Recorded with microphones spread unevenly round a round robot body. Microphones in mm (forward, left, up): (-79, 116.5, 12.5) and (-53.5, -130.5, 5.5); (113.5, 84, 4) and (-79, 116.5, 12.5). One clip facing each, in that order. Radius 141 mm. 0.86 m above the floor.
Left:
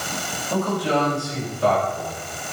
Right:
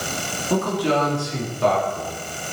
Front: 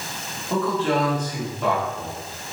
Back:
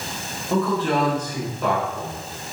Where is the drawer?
No drawer in this recording.